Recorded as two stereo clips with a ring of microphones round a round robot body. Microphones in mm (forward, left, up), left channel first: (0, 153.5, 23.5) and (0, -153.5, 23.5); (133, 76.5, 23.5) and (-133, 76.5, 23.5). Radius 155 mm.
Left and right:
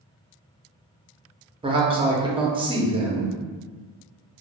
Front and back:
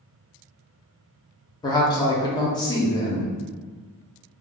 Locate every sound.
1.6 s a man speaking: 45° right, 0.7 m